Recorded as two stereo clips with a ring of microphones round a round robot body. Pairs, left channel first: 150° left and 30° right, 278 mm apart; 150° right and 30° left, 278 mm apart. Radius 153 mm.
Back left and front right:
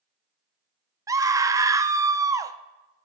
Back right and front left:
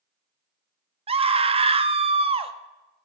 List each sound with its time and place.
1.1 s a scream: 25° left, 0.7 m